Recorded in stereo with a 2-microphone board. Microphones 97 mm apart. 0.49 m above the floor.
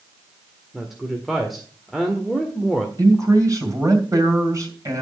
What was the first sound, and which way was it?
A woman speaking, centre (ahead or behind).